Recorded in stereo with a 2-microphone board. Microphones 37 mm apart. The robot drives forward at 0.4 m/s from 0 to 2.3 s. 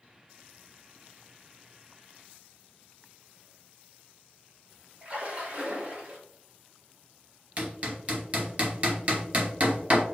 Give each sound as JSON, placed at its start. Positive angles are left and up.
{"t": 5.0, "sound": "a splash", "side_deg": -35, "distance_m": 1.1}
{"t": 7.6, "sound": "hammering", "side_deg": -35, "distance_m": 0.9}